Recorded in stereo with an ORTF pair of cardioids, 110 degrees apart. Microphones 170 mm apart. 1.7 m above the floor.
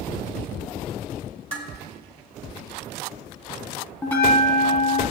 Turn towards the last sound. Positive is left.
turn(degrees=10)